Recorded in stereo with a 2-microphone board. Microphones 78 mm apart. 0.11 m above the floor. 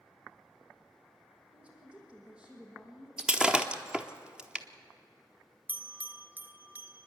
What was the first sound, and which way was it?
A woman speaking, 15° right (ahead or behind).